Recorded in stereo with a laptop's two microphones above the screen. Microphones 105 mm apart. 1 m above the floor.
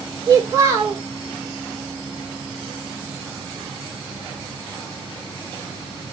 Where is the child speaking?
30° right (ahead or behind), 1.3 m.